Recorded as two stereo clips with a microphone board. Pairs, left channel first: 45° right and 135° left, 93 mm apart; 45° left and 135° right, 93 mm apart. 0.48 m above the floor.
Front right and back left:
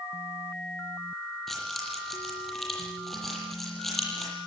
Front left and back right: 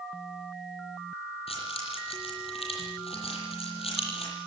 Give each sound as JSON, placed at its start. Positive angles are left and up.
{"t": 1.5, "sound": "keys jangling", "azimuth_deg": 40, "distance_m": 9.5}